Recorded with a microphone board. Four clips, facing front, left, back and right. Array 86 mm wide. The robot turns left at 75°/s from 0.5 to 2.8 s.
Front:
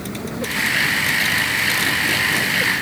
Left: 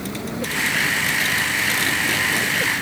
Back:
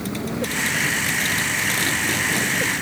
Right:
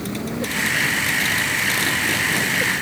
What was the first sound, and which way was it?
Only background noise.